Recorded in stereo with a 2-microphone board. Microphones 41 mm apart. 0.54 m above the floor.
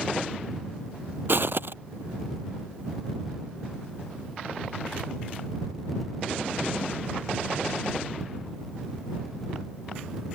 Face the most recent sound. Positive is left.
turn(degrees=-60)  # may be behind; listen again after turning